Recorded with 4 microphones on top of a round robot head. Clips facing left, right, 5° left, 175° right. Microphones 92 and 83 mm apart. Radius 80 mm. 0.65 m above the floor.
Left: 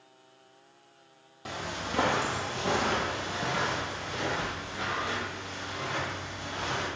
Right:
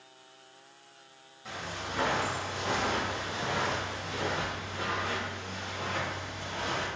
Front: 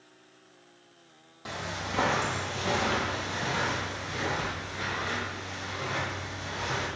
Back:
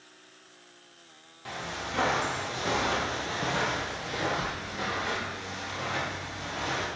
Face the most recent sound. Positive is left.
turn(degrees=-150)